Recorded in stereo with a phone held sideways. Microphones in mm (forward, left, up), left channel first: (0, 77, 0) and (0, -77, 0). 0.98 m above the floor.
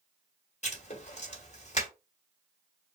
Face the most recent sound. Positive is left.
turn(degrees=50)  # may be behind; listen again after turning